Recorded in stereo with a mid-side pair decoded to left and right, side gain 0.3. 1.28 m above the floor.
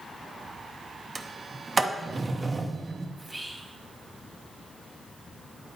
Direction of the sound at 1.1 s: 40° right.